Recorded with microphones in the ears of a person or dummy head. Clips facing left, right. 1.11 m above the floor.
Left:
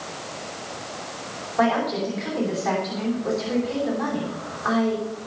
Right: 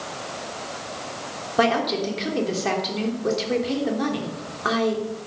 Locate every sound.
1.6 s a woman speaking: 40° right (ahead or behind), 3 m